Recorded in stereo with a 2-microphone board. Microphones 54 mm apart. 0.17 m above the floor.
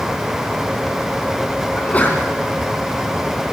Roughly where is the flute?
No flute in this recording.